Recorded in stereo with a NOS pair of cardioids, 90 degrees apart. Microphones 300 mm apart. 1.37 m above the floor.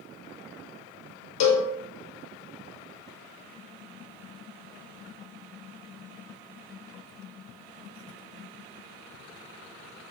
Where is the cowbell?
70° left, 0.9 m.